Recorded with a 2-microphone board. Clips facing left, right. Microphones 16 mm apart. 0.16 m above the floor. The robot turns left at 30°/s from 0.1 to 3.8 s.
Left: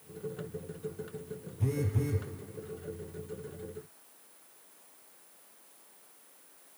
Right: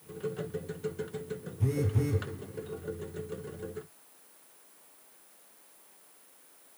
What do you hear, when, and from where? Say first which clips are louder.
1.6 s a phone buzzing: right 2 dB; centre (ahead or behind), 0.8 m; by 2.3 s 20° right (ahead or behind), 0.8 m